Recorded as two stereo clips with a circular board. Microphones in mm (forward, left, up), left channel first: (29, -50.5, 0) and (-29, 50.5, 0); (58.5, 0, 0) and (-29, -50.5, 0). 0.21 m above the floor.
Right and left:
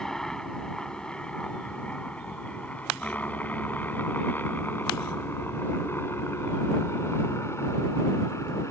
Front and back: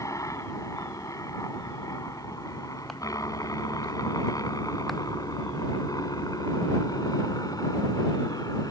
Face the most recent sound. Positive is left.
turn(degrees=-5)